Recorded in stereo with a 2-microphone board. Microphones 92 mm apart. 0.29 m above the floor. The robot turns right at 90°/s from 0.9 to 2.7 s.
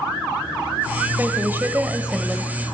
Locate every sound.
1.2 s a woman speaking: 25° right (ahead or behind), 0.9 m; by 2.5 s 5° left (ahead or behind), 0.9 m